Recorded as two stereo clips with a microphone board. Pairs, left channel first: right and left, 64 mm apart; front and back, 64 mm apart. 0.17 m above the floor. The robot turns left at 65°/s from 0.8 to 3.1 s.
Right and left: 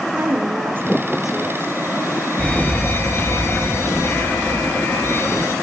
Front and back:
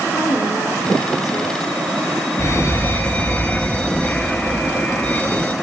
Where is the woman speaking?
35° left, 4 m; by 1.7 s 25° right, 4 m.